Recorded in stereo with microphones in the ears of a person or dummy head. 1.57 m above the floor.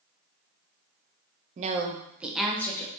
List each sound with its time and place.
1.6 s a woman speaking: 45° right (ahead or behind), 0.6 m; by 2.9 s 10° left (ahead or behind), 0.9 m